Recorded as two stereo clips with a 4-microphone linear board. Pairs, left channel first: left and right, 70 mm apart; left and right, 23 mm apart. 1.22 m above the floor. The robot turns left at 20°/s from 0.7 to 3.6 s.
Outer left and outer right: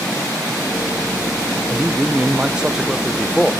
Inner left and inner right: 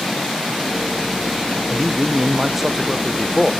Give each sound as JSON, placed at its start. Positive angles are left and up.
{"t": 1.7, "sound": "a man speaking", "azimuth_deg": -150, "distance_m": 0.9}